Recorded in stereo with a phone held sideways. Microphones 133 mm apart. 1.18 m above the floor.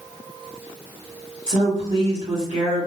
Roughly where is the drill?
No drill in this recording.